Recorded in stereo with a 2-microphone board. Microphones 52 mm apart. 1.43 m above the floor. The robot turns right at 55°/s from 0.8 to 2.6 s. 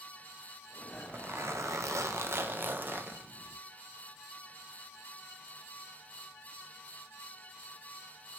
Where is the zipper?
135° right, 0.8 m; by 3.6 s 45° right, 0.8 m.